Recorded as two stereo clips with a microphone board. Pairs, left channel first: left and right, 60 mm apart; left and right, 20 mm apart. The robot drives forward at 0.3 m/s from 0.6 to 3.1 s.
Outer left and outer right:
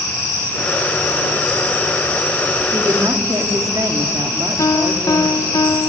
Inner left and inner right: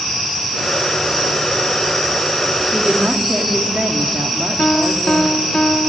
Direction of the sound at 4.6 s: 70° left (ahead or behind).